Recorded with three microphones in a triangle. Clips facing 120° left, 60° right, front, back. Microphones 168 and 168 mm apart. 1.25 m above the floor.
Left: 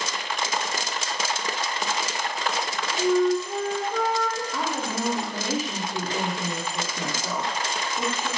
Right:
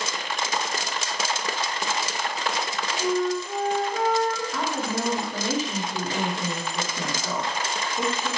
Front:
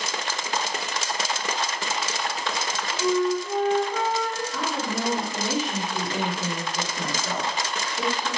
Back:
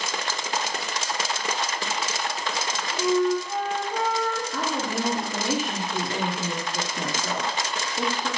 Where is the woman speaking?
155° right, 0.8 m.